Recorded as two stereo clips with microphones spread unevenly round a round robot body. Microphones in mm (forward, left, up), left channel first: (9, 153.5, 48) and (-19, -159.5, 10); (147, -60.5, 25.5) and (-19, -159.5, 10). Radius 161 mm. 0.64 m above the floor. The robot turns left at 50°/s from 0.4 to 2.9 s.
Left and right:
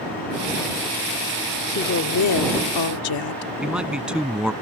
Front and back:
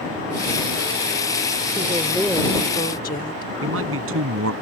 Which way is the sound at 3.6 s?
175° left.